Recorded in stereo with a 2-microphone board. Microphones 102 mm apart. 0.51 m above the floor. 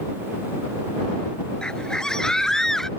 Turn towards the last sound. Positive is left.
turn(degrees=5)  # may be behind; listen again after turning